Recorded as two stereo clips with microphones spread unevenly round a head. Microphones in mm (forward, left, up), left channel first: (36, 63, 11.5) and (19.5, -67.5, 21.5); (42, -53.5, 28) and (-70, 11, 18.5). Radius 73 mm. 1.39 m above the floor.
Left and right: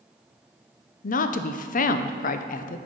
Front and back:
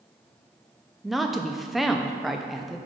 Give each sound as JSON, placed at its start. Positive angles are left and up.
{"t": 1.0, "sound": "a woman speaking", "azimuth_deg": 60, "distance_m": 0.6}